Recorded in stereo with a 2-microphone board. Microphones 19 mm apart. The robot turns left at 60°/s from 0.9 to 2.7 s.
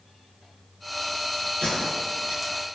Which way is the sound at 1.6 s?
85° left.